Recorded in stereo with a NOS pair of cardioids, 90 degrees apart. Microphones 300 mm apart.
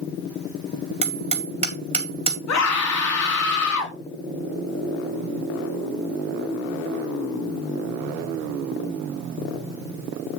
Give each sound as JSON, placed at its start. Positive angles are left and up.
{"t": 1.0, "sound": "hammering", "azimuth_deg": -20, "distance_m": 4.5}
{"t": 2.5, "sound": "a scream", "azimuth_deg": 60, "distance_m": 4.0}